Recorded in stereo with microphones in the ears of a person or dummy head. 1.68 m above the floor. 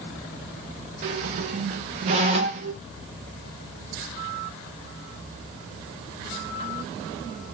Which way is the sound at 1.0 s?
40° right (ahead or behind).